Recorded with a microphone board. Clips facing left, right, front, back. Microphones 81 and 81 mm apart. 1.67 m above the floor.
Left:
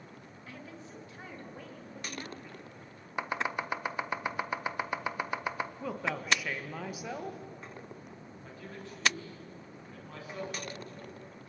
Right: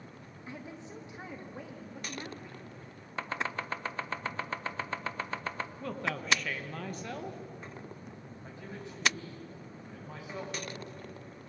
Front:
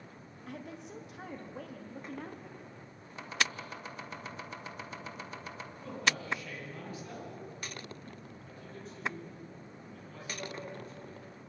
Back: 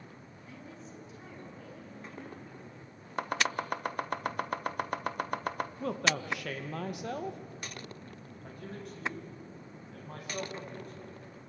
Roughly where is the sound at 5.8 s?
Behind.